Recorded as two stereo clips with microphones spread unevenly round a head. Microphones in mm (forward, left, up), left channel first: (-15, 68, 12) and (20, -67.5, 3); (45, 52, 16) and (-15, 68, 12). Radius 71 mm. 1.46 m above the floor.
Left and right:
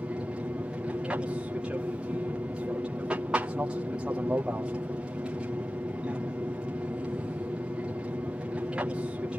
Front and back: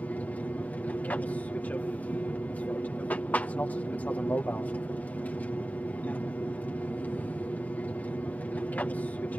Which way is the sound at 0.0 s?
15° right.